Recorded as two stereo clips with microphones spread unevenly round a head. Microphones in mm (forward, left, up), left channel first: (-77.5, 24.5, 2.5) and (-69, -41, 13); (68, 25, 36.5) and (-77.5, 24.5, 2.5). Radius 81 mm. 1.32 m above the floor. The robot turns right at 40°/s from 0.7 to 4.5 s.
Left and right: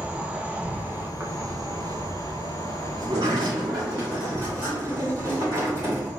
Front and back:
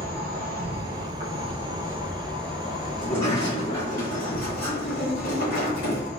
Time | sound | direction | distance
0.0 | an insect | 155° right | 1.3 m
3.0 | a sliding door | 85° right | 2.5 m